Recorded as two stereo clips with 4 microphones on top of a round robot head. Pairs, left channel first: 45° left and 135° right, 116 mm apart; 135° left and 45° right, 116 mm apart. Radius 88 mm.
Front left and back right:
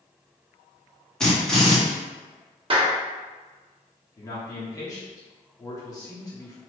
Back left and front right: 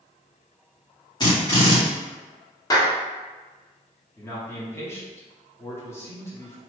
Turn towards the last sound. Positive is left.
turn(degrees=85)